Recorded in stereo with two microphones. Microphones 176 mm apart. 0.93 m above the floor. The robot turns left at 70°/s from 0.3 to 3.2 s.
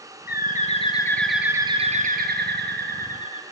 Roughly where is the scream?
No scream in this recording.